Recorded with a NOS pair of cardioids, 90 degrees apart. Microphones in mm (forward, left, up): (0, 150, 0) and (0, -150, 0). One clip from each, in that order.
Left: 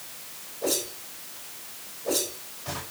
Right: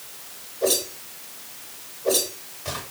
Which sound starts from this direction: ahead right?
A whoosh, at 0.6 s.